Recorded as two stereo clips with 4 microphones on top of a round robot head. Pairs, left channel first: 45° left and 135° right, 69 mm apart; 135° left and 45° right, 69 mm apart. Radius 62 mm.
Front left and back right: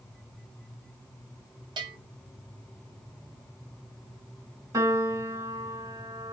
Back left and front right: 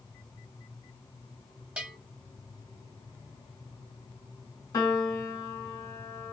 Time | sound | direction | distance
1.8 | a bell | 120° right | 0.9 m
4.7 | a piano | straight behind | 1.3 m